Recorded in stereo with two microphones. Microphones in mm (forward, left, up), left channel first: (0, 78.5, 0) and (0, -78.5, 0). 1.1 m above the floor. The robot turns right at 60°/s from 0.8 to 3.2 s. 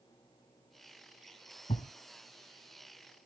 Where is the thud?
45° left (ahead or behind), 1.8 m; by 1.9 s 55° left (ahead or behind), 1.8 m.